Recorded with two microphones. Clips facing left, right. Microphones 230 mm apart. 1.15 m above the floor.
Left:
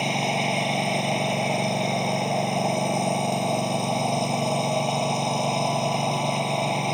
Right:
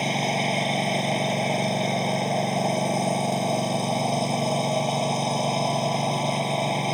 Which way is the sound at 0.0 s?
5° right (ahead or behind).